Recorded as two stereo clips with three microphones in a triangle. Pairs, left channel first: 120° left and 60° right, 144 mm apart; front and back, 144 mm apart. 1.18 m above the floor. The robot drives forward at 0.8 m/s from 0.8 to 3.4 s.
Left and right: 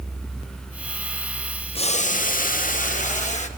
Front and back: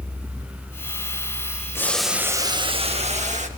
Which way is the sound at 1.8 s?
75° left.